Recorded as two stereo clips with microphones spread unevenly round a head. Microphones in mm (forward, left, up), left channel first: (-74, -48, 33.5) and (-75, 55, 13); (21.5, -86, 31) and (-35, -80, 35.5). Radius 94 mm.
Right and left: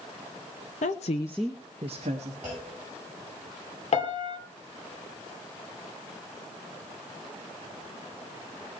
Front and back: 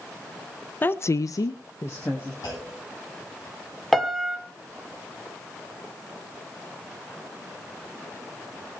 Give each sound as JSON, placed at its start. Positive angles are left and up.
{"t": 0.8, "sound": "a woman speaking", "azimuth_deg": -60, "distance_m": 0.9}
{"t": 2.4, "sound": "a clunk", "azimuth_deg": 15, "distance_m": 9.0}
{"t": 3.9, "sound": "a piano", "azimuth_deg": -95, "distance_m": 1.9}